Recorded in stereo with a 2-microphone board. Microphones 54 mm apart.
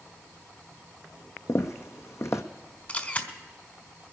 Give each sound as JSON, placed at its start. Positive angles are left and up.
{"t": 1.5, "sound": "footsteps", "side_deg": 60, "distance_m": 0.9}
{"t": 2.9, "sound": "a camera shutter", "side_deg": 30, "distance_m": 1.5}